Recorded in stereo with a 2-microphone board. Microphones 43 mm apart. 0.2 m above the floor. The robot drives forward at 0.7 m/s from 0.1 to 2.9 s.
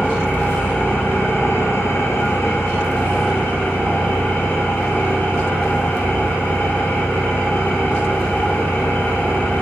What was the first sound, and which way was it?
An engine running, 30° left (ahead or behind).